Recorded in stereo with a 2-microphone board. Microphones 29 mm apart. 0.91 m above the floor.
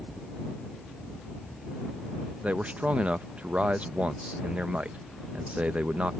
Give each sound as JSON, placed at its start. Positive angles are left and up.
{"t": 2.4, "sound": "a man speaking", "side_deg": -45}